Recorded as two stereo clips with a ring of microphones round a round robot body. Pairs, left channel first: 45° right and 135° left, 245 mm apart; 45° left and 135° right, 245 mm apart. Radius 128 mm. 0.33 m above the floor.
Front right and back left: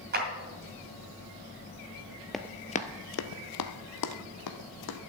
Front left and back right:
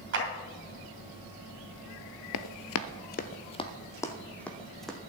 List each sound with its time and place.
0.1 s a clap: 170° right, 3 m
2.3 s running footsteps: 45° left, 0.5 m; by 5.0 s 45° right, 1.4 m